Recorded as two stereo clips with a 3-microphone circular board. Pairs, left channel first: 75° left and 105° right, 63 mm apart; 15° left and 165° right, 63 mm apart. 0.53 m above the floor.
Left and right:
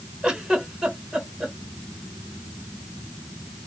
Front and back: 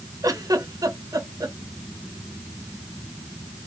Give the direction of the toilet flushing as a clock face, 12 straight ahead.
No toilet flushing in this recording.